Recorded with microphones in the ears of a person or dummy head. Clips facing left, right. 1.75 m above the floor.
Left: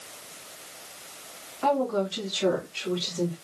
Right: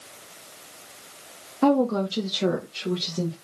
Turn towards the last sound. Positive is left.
turn(degrees=-40)  # may be behind; listen again after turning